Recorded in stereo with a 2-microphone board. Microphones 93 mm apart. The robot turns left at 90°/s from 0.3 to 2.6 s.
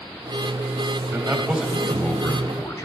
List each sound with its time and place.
1.1 s a man speaking: 125° right, 1.4 m; by 2.9 s 100° left, 1.4 m